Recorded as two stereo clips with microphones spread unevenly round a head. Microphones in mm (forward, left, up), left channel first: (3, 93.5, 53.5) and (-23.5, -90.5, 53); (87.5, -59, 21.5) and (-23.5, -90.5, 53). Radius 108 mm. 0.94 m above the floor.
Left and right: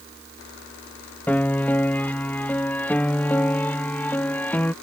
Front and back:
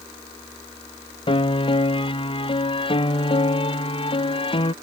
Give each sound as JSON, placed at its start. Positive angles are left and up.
{"t": 1.3, "sound": "a piano", "azimuth_deg": 0}